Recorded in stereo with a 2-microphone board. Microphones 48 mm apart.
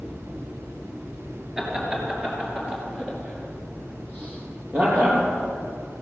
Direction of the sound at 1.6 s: 15° right (ahead or behind).